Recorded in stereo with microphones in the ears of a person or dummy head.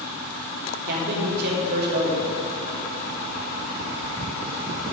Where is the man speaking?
60° right (ahead or behind), 3.5 m.